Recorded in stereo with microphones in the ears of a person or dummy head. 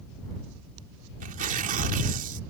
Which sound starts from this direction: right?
Tearing paper, at 1.2 s.